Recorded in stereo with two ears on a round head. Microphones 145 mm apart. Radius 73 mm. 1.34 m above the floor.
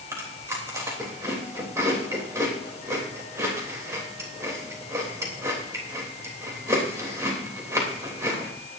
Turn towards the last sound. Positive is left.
turn(degrees=-20)  # may be behind; listen again after turning